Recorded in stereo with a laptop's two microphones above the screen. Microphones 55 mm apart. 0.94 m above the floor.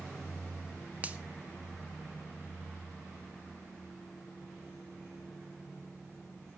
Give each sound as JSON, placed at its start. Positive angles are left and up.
{"t": 1.0, "sound": "a finger snap", "side_deg": -25, "distance_m": 0.7}